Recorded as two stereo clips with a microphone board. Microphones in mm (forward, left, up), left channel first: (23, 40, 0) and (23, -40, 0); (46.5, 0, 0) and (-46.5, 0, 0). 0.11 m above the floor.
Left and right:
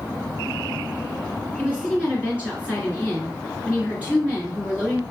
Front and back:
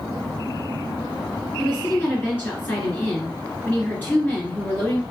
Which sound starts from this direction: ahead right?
A woman speaking, at 1.6 s.